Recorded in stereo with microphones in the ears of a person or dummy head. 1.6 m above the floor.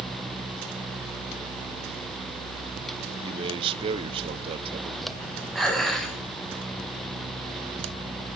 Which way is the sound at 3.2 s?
30° right (ahead or behind).